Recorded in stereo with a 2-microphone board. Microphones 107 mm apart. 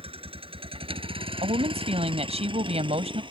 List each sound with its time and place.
0.0 s a vehicle: 65° right (ahead or behind); by 3.3 s 55° right (ahead or behind)
1.4 s a woman speaking: 85° right